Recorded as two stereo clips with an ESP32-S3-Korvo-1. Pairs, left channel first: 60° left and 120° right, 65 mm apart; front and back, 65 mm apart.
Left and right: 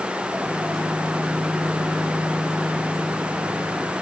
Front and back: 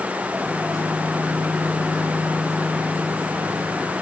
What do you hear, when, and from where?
0.4 s a microwave: 30° right, 6 m